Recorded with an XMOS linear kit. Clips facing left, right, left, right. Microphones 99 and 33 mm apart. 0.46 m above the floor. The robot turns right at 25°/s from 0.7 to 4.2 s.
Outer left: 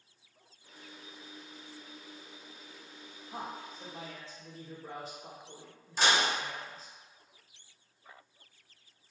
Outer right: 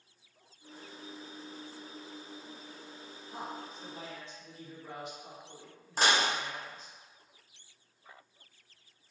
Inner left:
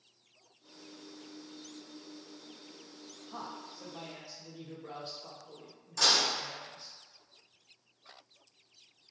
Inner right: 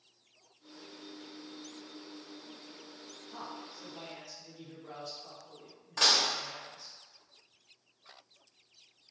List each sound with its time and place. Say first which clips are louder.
3.3 s a man speaking: even, inner left 1 dB; 40° left (ahead or behind), 1.0 m
6.0 s dishes clattering: even, even; 50° right (ahead or behind), 1.0 m